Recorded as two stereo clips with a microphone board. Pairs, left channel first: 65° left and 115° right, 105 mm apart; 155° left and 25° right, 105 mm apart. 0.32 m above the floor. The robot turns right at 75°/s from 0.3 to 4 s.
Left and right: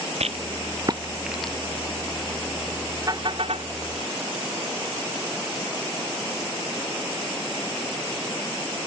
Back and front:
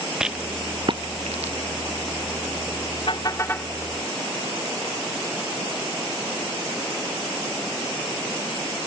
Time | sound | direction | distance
0.2 | a rattle | 105° right | ?
3.1 | a car horn | 165° right | ?